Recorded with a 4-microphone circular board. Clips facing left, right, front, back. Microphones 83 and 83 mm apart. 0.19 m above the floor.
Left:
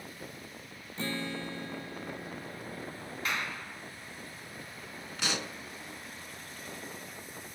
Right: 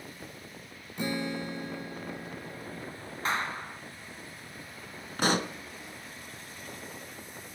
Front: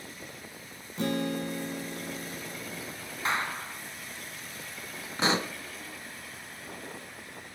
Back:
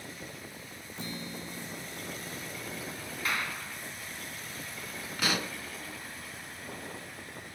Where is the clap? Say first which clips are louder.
Right 5 dB, front 4 dB; 50° right, 1.9 m.